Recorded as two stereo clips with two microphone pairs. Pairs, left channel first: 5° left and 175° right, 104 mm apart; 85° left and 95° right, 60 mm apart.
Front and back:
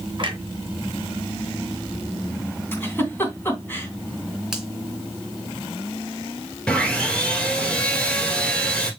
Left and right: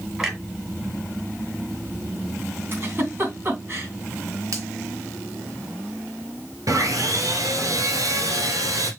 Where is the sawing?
75° right, 1.9 m.